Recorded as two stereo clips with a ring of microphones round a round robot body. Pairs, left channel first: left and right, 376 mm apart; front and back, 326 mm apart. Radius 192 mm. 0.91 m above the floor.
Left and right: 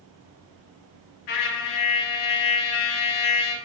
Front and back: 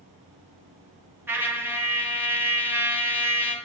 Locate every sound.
1.3 s a trumpet: 95° left, 1.0 m